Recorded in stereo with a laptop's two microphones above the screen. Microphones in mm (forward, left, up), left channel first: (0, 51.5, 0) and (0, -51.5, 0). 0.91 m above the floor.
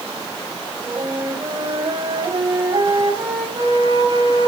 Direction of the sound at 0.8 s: 50° right (ahead or behind).